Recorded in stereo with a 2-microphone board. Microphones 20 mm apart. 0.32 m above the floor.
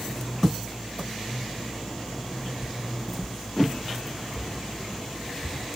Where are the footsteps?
40° right (ahead or behind), 0.5 m; by 5.6 s 20° left (ahead or behind), 4 m.